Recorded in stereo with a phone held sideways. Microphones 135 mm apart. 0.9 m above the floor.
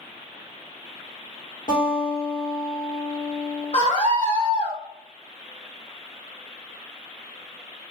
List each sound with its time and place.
1.7 s a guitar: 65° left (ahead or behind), 2.5 m
3.7 s a scream: 55° left (ahead or behind), 1.2 m